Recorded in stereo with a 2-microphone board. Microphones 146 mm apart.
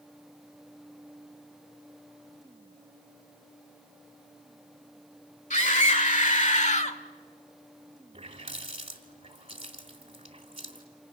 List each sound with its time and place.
5.5 s a scream: 55° left (ahead or behind), 2.0 m; by 7.0 s 50° left (ahead or behind), 1.3 m
8.1 s a running tap: 40° right (ahead or behind), 2.5 m